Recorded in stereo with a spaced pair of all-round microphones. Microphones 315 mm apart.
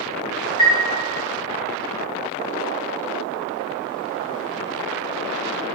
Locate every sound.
0.6 s a chime: centre (ahead or behind), 4 m